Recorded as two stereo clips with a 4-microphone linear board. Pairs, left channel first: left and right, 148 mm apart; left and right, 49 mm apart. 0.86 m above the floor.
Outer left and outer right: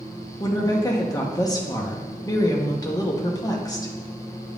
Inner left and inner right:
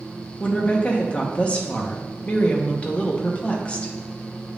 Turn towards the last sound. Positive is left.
turn(degrees=25)  # may be behind; listen again after turning